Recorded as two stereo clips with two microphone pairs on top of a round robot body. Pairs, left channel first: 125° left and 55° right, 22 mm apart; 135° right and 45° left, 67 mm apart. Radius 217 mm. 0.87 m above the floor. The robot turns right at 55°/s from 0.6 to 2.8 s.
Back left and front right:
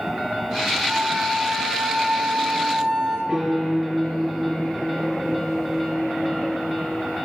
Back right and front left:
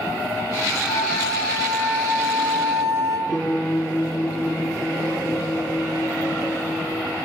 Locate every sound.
0.9 s a flute: 110° right, 4 m; by 3.2 s 5° right, 4 m
3.3 s a piano: 50° right, 7 m